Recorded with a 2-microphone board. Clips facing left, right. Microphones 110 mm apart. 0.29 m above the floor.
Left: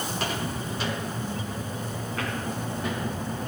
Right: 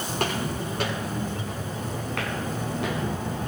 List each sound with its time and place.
0.1 s footsteps: 55° right (ahead or behind), 7.5 m; by 3.5 s 85° right, 4 m